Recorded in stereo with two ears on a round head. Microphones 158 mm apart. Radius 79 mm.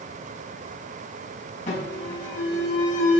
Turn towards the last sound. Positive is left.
turn(degrees=45)  # may be behind; listen again after turning